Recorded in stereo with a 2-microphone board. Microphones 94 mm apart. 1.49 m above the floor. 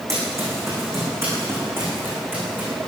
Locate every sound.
0.1 s running footsteps: 30° right (ahead or behind), 7 m; by 2.7 s 20° right (ahead or behind), 8 m